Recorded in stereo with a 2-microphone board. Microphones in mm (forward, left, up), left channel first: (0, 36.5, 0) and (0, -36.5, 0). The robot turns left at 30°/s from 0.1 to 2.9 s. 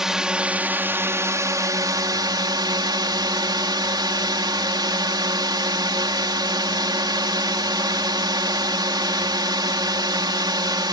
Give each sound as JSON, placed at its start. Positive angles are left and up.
{"t": 0.0, "sound": "a drone", "azimuth_deg": -5}